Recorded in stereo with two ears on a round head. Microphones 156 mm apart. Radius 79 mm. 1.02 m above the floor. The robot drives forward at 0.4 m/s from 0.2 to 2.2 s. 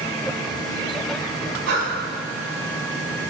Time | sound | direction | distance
1.7 | breathing | 70° right (ahead or behind) | 2 m